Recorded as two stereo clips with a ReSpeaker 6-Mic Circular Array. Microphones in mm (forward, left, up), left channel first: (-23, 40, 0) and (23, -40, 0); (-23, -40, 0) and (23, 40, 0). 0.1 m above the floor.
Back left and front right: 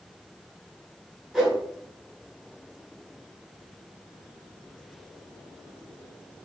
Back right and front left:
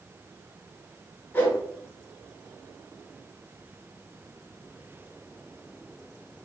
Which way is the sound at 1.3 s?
145° right.